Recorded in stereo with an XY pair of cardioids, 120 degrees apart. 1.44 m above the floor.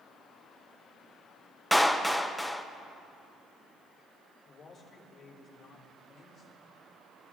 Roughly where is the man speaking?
Ahead left.